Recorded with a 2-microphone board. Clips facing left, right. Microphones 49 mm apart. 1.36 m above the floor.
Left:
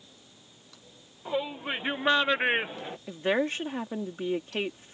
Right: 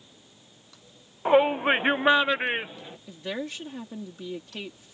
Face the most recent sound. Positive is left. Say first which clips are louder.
# left 7 dB
turn(degrees=45)  # may be behind; listen again after turning